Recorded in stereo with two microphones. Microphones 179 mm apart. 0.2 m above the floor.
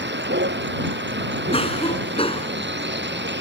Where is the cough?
35° left (ahead or behind).